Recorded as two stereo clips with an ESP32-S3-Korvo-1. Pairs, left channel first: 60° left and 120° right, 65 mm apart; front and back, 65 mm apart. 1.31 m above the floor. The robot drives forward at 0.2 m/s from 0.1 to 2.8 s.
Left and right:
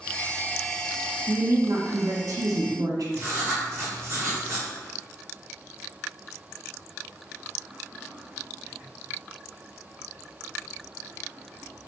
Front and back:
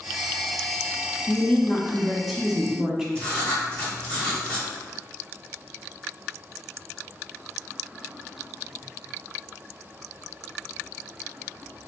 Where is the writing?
70° right, 1.1 m.